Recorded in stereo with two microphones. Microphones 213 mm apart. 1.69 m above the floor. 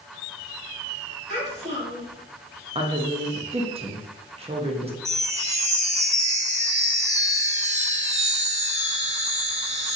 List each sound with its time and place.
1.3 s a child speaking: 55° left (ahead or behind), 2.0 m
2.8 s a woman speaking: 30° right (ahead or behind), 0.7 m
5.0 s a chime: 30° right (ahead or behind), 0.8 m